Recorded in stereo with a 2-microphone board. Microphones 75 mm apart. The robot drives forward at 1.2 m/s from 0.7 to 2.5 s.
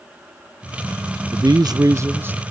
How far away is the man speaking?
About 0.6 m.